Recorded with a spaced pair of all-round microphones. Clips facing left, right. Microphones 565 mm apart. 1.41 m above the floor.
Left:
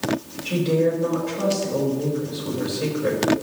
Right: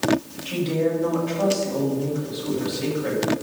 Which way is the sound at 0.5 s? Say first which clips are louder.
Left 3 dB; 65° left (ahead or behind).